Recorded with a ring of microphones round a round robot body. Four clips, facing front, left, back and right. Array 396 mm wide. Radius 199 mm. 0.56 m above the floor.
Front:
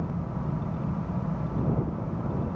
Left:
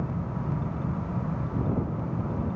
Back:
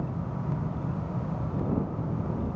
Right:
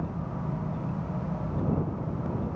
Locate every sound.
Only background noise.